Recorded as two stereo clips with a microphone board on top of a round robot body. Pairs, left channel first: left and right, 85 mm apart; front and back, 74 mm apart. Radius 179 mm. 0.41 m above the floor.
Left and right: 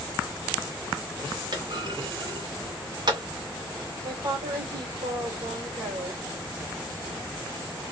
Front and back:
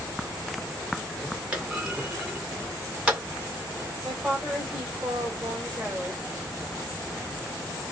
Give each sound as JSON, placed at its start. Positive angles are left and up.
{"t": 1.5, "sound": "a clunk", "azimuth_deg": -105, "distance_m": 2.0}
{"t": 4.0, "sound": "a woman speaking", "azimuth_deg": -110, "distance_m": 2.5}